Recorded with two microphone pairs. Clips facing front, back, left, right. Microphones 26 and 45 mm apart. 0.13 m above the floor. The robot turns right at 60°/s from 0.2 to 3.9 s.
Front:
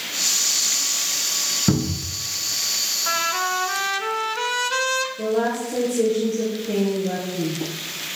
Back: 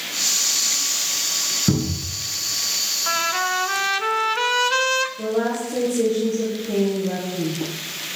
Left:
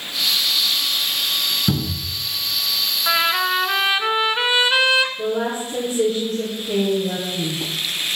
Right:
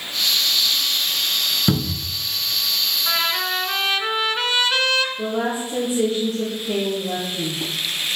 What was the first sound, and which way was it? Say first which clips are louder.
A cupboard door: even, right 1 dB; 45° right.